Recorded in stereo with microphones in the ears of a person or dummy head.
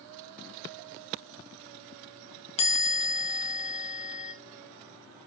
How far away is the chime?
About 0.9 m.